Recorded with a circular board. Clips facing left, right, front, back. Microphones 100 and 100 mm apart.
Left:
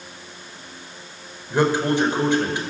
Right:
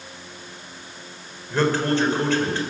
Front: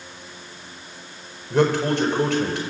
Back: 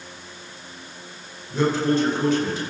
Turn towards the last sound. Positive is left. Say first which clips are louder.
# left 2 dB, front 1 dB
turn(degrees=15)